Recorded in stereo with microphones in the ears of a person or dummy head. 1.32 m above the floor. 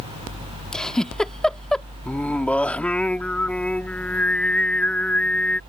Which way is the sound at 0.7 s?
5° left (ahead or behind).